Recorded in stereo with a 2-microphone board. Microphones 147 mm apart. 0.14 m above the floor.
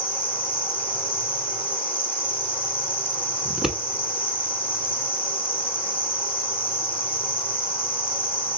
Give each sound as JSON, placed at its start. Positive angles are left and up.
{"t": 0.0, "sound": "an insect", "side_deg": 40, "distance_m": 2.5}
{"t": 3.5, "sound": "scissors", "side_deg": -5, "distance_m": 1.0}